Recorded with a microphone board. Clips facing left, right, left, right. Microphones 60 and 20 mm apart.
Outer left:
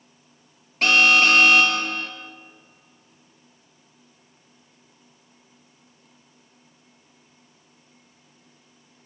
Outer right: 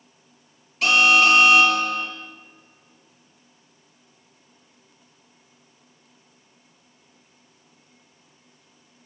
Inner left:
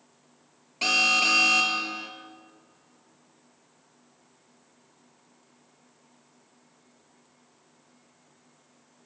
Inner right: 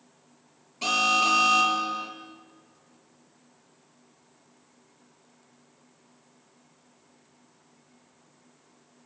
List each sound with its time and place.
0.8 s an alarm: 45° left (ahead or behind), 4 m